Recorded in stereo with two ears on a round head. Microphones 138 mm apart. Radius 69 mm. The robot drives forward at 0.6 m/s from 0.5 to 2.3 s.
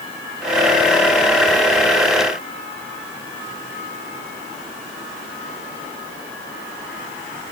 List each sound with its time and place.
Only background noise.